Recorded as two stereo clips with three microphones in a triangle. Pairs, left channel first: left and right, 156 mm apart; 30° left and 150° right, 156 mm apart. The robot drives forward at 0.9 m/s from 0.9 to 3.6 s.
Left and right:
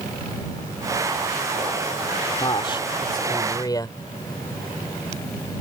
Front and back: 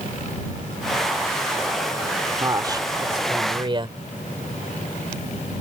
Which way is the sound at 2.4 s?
145° left.